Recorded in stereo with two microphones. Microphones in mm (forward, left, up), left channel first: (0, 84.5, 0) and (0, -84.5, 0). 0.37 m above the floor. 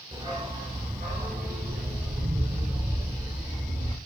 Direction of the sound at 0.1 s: 30° right (ahead or behind).